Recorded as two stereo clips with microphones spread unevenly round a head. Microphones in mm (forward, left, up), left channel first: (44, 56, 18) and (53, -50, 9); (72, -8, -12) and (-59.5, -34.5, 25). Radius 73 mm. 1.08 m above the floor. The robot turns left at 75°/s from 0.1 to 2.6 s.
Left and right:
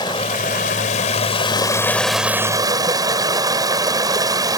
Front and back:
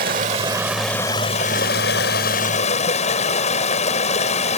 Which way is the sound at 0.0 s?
155° left.